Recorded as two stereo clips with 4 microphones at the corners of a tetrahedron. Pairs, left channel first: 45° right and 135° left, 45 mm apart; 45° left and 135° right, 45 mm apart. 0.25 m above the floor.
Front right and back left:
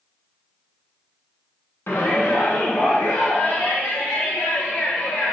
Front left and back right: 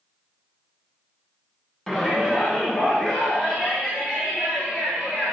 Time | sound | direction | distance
1.9 | a shout | 35° right | 1.9 m